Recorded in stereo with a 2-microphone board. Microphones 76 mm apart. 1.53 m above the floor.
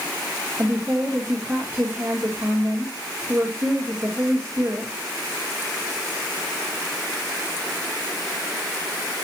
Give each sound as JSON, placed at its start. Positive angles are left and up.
{"t": 0.6, "sound": "a woman speaking", "side_deg": -30, "distance_m": 2.5}